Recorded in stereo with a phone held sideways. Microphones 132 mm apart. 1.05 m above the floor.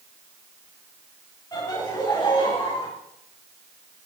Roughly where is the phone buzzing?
I don't hear a phone buzzing.